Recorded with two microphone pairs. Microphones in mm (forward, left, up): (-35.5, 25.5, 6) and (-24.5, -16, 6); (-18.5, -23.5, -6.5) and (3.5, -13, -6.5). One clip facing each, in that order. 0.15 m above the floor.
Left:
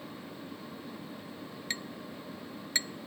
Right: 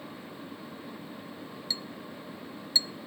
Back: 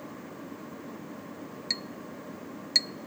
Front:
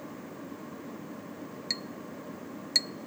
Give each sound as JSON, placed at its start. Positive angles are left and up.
{"t": 1.7, "sound": "a clink", "azimuth_deg": 130}